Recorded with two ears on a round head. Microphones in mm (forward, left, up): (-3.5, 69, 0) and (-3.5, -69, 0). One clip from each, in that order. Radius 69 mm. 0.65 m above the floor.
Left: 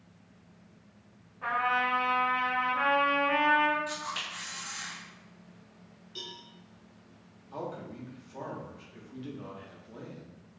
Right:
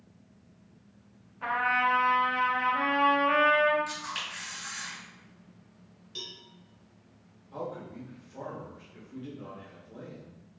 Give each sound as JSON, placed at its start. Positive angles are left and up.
{"t": 1.4, "sound": "a trumpet", "side_deg": -60, "distance_m": 0.9}
{"t": 3.9, "sound": "a camera shutter", "side_deg": -50, "distance_m": 1.7}
{"t": 6.2, "sound": "a cowbell", "side_deg": -25, "distance_m": 0.6}
{"t": 7.5, "sound": "a man speaking", "side_deg": 35, "distance_m": 0.8}